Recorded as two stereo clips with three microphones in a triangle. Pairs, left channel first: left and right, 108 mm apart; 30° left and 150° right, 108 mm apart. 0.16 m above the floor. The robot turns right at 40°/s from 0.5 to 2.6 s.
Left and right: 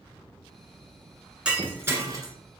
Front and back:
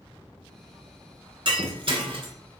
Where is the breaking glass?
170° right, 0.9 m; by 2.3 s 135° right, 0.9 m.